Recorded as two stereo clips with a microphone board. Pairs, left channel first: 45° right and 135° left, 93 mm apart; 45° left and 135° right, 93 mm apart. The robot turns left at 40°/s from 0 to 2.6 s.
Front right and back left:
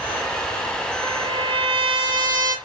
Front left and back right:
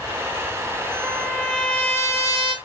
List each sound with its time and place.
1.0 s a trumpet: 150° left, 1.8 m; by 2.5 s 90° left, 1.8 m